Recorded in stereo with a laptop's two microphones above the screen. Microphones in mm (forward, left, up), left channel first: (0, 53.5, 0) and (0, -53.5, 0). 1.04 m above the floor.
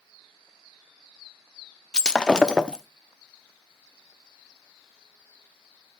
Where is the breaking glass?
10° left (ahead or behind), 0.7 m.